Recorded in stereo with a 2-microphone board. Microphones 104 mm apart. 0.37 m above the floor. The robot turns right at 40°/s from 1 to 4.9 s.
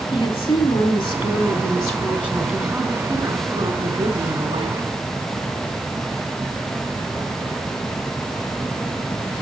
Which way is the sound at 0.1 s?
115° left.